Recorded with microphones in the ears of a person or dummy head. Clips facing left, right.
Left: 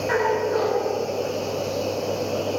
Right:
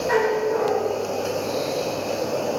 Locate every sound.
0.1 s a dog barking: 40° left (ahead or behind), 10 m